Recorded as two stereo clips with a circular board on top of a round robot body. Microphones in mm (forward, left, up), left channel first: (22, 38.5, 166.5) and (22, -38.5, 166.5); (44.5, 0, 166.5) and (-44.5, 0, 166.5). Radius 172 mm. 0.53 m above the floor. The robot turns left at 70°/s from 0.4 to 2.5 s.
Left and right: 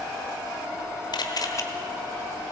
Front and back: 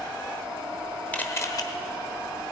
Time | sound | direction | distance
1.1 | a camera shutter | 75° left | 1.1 m